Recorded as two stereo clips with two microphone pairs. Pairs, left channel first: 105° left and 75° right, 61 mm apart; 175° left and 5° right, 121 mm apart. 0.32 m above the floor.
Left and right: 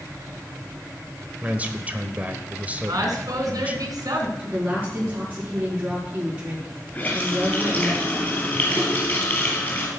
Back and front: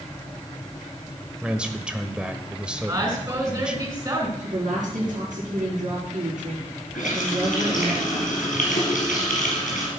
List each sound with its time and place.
1.4 s a man speaking: 80° right, 1.1 m
2.9 s a woman speaking: 65° right, 4 m
4.4 s a woman speaking: 10° right, 5 m
6.9 s a running tap: 165° left, 5 m